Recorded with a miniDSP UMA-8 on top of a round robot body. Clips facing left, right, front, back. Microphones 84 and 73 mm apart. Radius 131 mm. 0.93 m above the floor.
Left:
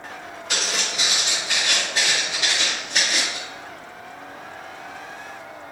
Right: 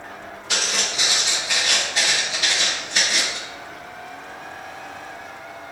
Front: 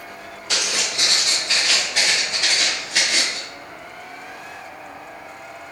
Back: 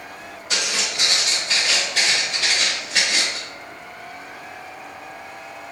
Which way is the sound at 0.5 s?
Straight ahead.